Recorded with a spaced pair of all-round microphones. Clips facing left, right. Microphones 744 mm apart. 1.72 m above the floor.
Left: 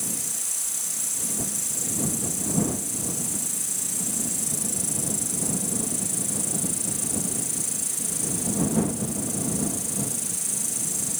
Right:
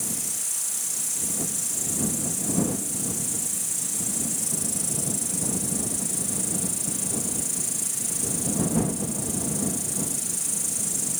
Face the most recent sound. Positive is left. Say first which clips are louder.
# even
turn(degrees=-50)  # may be behind; listen again after turning